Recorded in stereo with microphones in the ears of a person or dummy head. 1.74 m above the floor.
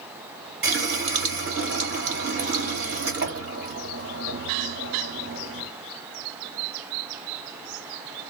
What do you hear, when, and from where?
0.6 s a running tap: 60° right (ahead or behind), 1.4 m